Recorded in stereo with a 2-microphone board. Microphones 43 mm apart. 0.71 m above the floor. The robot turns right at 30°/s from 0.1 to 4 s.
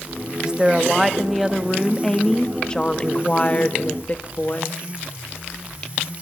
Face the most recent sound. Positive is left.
turn(degrees=75)